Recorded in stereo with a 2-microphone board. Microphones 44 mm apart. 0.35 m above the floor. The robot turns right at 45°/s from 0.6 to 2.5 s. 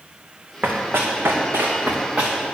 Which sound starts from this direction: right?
Running footsteps, at 0.6 s.